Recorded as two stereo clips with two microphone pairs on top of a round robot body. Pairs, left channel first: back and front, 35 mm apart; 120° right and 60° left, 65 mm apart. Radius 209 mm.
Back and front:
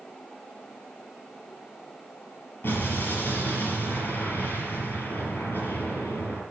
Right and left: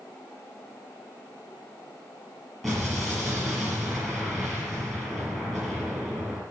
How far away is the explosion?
About 5.5 m.